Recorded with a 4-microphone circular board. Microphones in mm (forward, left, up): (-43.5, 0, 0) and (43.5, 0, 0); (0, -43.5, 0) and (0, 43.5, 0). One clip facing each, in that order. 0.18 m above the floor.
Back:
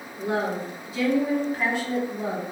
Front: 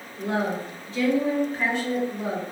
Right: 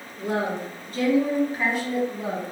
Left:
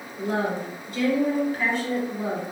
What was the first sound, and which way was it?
A woman speaking, 100° right.